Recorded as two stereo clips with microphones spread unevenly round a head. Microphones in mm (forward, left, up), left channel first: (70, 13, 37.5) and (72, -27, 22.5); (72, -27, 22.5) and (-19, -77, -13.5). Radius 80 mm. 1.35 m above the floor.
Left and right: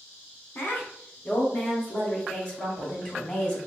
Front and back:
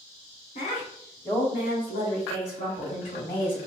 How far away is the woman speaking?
About 1.2 m.